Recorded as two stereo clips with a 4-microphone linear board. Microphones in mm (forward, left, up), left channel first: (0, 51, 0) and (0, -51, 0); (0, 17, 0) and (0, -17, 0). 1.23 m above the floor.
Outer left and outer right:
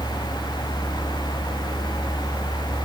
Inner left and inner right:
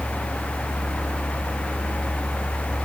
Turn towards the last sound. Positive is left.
No sound to turn to.